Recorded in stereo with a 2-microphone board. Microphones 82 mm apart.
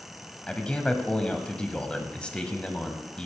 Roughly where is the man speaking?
Centre.